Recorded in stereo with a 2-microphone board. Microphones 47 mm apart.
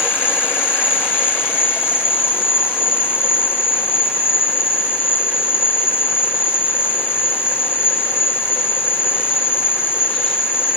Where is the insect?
55° left (ahead or behind), 8 m.